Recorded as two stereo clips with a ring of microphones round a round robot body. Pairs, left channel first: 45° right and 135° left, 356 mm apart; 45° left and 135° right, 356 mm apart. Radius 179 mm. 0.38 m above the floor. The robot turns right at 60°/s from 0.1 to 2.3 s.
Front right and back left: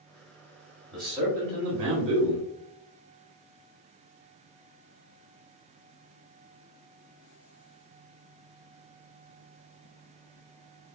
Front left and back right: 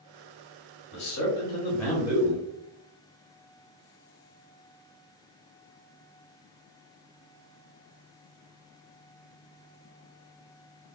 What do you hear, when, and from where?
0.9 s a man speaking: 40° left, 1.5 m; by 2.4 s 120° left, 1.5 m